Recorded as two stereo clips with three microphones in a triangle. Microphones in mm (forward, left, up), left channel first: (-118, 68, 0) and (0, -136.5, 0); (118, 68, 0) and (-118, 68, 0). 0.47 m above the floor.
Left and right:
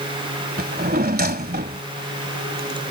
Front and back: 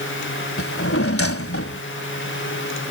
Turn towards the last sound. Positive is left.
turn(degrees=-15)